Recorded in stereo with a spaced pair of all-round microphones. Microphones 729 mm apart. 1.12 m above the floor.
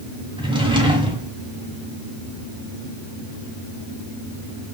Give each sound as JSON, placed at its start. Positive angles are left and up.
{"t": 0.4, "sound": "a drawer", "side_deg": -5, "distance_m": 1.9}